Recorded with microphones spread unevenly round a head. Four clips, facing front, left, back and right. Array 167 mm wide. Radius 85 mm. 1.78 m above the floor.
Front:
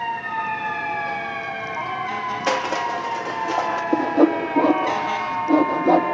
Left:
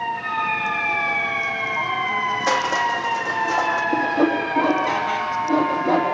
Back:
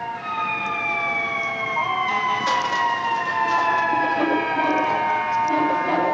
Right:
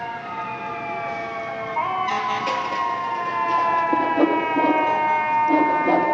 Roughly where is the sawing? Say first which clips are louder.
Right 1 dB, front 3 dB; ahead.